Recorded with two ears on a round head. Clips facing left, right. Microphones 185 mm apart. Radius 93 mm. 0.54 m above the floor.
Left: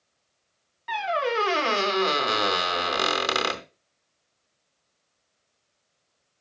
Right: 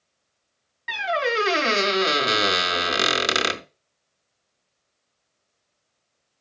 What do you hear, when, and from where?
0.9 s a squeak: 25° right (ahead or behind), 0.6 m